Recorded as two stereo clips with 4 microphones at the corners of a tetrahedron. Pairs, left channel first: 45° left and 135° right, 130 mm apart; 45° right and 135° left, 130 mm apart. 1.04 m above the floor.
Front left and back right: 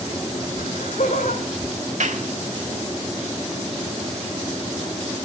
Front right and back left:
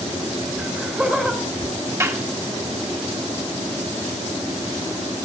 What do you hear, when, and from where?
0.6 s laughter: 55° left, 5 m
2.0 s a clap: 155° right, 1.8 m